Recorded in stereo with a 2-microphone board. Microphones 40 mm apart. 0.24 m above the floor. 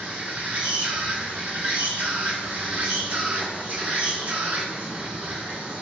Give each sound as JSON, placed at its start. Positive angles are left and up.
{"t": 0.0, "sound": "an insect", "side_deg": -40, "distance_m": 1.1}